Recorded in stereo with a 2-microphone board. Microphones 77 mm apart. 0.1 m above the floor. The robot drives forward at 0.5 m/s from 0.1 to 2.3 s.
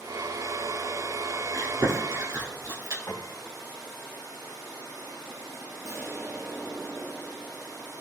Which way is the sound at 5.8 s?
35° right (ahead or behind).